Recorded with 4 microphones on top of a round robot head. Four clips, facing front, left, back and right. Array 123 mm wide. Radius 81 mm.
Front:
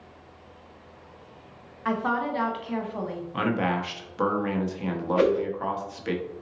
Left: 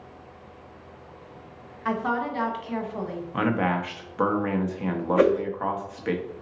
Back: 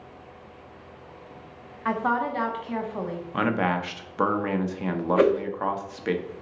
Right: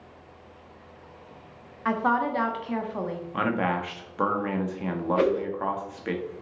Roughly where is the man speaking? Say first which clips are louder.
Left 2 dB, back 1 dB; behind.